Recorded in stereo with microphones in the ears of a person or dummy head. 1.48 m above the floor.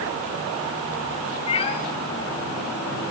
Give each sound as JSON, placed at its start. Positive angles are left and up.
{"t": 1.5, "sound": "a cat meowing", "side_deg": 35, "distance_m": 1.0}